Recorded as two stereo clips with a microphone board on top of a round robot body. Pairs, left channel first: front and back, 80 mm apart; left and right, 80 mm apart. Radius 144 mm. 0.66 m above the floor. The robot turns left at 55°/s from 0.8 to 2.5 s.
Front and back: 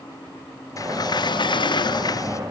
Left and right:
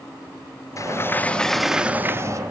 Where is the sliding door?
40° left, 1.3 m; by 2.4 s 45° right, 1.3 m.